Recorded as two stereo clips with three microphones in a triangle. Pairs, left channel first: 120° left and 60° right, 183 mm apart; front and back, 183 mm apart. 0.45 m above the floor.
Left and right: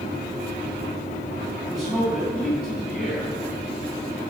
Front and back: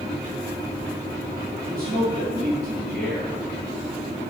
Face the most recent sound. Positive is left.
turn(degrees=-145)